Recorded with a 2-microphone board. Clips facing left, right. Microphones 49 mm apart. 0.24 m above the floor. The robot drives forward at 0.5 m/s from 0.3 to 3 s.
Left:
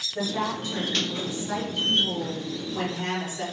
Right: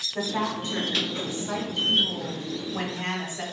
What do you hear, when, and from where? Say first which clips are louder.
0.1 s a woman speaking: even; 25° right (ahead or behind), 1.4 m; by 3.4 s 20° right (ahead or behind), 1.8 m